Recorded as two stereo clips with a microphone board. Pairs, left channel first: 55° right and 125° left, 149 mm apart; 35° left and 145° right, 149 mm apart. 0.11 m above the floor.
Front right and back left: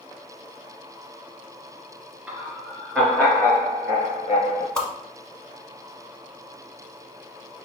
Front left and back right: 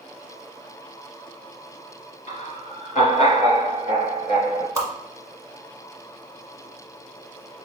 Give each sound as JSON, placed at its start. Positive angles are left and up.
{"t": 2.3, "sound": "laughter", "azimuth_deg": 45, "distance_m": 1.7}
{"t": 4.8, "sound": "a whoosh", "azimuth_deg": -130, "distance_m": 1.0}